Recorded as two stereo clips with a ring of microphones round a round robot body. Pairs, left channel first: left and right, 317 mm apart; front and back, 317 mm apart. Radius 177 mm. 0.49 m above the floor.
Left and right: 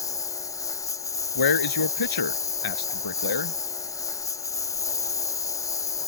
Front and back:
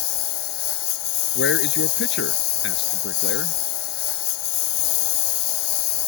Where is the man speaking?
60° left.